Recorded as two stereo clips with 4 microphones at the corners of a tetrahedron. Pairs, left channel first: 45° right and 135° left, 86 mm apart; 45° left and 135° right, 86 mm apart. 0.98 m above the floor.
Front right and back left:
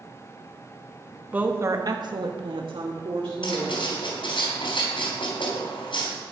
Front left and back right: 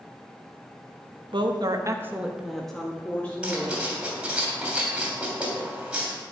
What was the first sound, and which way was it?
A woman speaking, 155° right.